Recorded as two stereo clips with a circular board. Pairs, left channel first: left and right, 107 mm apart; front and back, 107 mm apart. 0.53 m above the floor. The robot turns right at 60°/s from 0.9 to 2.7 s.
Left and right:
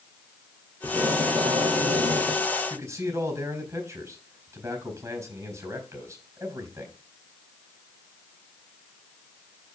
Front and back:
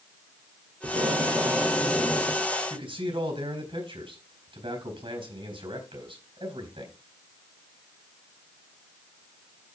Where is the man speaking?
155° right, 4 m.